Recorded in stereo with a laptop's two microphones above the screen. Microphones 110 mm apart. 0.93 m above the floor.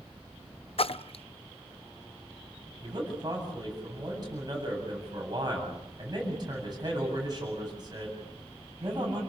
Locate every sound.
0.8 s a splash: 60° left (ahead or behind), 0.6 m
2.8 s a man speaking: 40° right (ahead or behind), 8 m